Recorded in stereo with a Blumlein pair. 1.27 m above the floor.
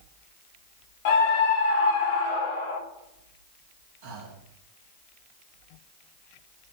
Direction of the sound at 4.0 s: 50° right.